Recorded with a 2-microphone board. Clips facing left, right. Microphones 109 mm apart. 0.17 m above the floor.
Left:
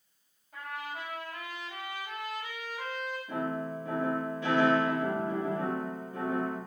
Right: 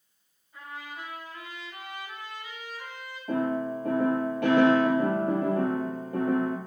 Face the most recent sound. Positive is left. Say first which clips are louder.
# right 8 dB
turn(degrees=-65)  # may be behind; listen again after turning